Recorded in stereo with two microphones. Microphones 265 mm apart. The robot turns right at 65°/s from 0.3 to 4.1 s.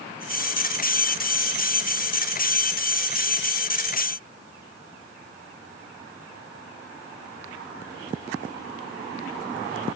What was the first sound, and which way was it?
Only background noise.